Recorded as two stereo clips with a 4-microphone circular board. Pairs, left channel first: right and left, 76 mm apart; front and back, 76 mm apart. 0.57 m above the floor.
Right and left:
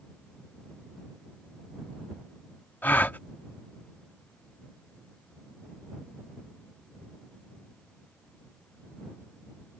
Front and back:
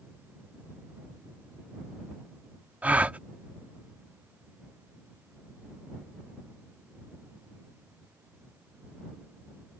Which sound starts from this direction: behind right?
A gasp, at 2.8 s.